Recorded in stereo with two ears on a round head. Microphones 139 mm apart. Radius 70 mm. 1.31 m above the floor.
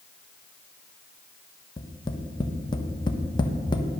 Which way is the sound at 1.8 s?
30° left (ahead or behind).